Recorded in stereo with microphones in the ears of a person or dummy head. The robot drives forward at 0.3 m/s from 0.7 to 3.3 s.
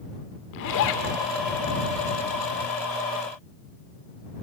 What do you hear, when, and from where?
0.5 s a zipper: 55° left (ahead or behind), 1.8 m